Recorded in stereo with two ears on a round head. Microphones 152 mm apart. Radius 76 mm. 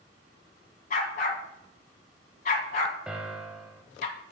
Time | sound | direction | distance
0.9 | a dog barking | 50° left (ahead or behind) | 1.6 m
3.1 | a piano | 5° right (ahead or behind) | 0.7 m